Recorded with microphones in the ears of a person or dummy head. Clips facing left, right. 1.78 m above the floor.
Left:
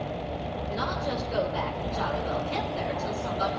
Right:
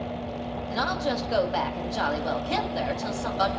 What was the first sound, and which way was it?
A woman speaking, 85° right.